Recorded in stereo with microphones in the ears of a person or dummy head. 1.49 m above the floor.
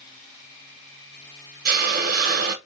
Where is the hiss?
55° right (ahead or behind), 0.8 m.